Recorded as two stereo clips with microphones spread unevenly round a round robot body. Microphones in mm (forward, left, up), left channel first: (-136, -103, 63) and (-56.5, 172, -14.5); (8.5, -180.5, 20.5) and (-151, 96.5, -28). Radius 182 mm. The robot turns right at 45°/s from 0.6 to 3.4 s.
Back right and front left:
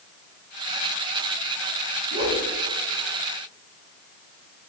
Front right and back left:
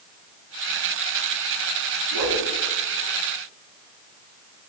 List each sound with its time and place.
2.1 s a whoosh: 130° left, 4.5 m; by 2.5 s 145° left, 4.5 m